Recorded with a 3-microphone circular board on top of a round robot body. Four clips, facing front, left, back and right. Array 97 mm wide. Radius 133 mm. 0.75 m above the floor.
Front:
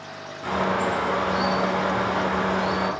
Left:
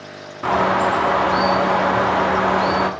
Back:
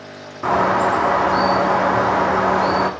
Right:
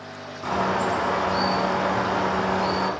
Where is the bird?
150° left, 1.2 m.